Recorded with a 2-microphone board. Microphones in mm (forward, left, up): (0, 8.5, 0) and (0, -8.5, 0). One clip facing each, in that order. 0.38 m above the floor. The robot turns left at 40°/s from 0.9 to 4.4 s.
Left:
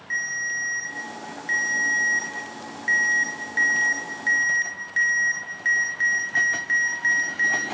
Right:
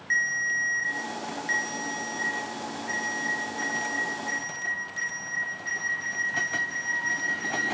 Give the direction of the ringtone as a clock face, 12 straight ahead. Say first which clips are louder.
Right 1 dB; 5 o'clock.